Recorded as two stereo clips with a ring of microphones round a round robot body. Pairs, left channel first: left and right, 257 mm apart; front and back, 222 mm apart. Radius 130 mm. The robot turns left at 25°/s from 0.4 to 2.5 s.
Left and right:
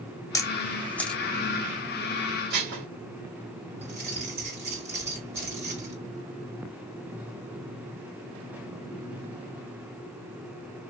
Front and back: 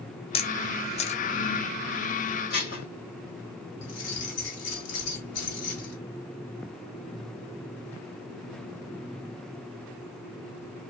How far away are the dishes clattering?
About 1.5 m.